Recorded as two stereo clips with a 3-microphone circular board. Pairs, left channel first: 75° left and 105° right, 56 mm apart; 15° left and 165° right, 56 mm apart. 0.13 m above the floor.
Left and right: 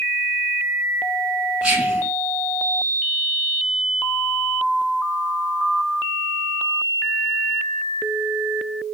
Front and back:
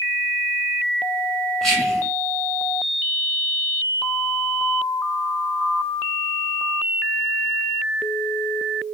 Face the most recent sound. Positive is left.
turn(degrees=-55)